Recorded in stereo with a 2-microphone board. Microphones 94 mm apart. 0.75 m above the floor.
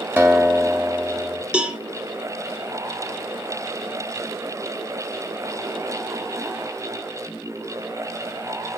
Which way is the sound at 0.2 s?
20° right (ahead or behind).